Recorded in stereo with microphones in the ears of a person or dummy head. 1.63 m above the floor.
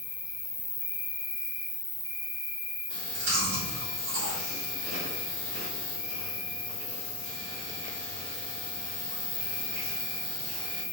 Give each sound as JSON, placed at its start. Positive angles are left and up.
{"t": 0.0, "sound": "an insect", "side_deg": -10, "distance_m": 1.7}
{"t": 2.9, "sound": "chewing", "side_deg": -60, "distance_m": 1.8}